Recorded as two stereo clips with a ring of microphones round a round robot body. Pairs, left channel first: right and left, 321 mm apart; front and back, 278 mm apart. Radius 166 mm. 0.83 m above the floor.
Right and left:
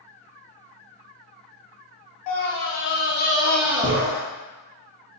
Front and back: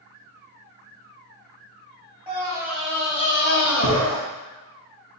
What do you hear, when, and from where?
2.3 s a scream: 110° right, 1.2 m; by 4.2 s 30° left, 1.1 m